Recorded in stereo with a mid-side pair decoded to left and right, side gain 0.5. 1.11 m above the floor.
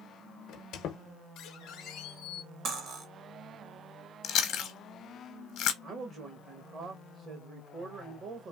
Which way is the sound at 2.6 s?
65° right.